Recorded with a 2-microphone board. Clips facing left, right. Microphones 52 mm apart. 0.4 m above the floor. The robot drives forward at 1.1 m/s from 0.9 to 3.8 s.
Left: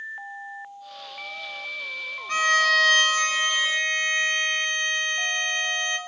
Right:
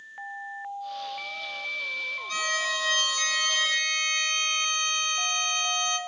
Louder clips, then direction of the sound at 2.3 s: Left 10 dB; 40° left (ahead or behind).